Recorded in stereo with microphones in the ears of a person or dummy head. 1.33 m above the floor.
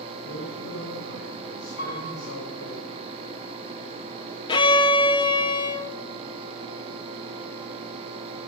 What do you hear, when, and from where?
0.2 s a man speaking: 75° left (ahead or behind), 5.5 m; by 2.8 s 80° left, 5.5 m
1.8 s a piano: 60° left (ahead or behind), 8 m
4.5 s a violin: 25° left (ahead or behind), 0.9 m